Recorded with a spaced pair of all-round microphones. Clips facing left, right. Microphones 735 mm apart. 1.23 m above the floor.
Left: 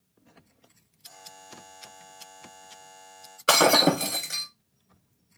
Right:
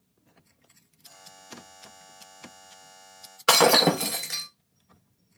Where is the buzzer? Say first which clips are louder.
Right 1 dB; centre (ahead or behind), 2 m.